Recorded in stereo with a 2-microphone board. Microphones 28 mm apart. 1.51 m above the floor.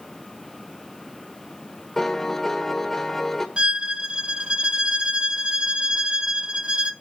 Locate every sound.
2.0 s a piano: 10° left (ahead or behind), 1.1 m
3.6 s a violin: 35° right (ahead or behind), 0.6 m